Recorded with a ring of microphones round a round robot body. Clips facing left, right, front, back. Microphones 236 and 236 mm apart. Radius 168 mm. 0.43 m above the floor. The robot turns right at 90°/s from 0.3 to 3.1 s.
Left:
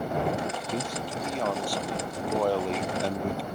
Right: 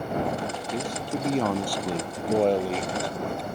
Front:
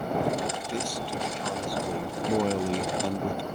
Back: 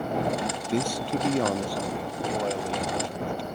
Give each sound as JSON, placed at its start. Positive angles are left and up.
{"t": 0.7, "sound": "a man speaking", "azimuth_deg": 175}